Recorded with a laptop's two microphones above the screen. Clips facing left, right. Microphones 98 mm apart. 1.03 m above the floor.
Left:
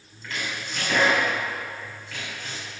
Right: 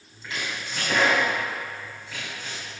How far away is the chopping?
About 2.5 m.